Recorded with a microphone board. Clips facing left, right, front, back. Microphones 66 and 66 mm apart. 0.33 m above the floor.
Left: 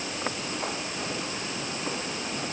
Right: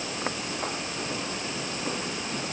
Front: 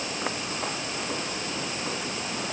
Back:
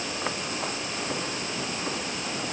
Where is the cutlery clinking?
I don't hear cutlery clinking.